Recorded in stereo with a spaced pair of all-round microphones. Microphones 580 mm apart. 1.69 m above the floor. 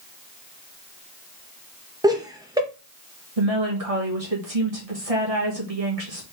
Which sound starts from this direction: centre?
Laughter, at 2.0 s.